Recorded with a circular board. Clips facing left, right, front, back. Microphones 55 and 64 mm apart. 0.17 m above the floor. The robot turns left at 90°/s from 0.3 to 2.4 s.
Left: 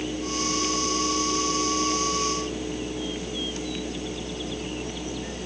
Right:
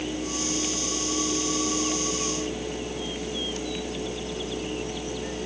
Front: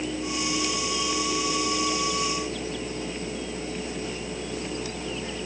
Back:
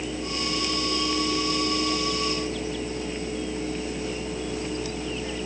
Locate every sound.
Only background noise.